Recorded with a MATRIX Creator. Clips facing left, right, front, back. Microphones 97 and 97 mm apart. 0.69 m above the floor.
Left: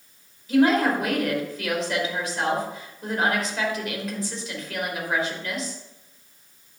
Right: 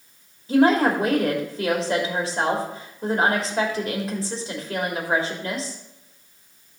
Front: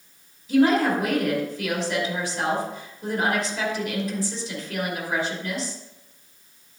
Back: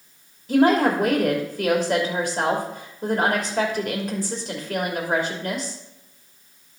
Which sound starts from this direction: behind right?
A woman speaking, at 0.5 s.